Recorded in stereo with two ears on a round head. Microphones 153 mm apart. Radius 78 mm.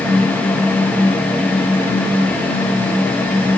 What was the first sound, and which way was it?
Only background noise.